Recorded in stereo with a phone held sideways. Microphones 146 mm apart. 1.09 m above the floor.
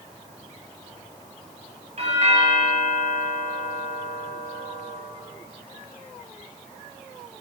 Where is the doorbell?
45° right (ahead or behind), 4 m.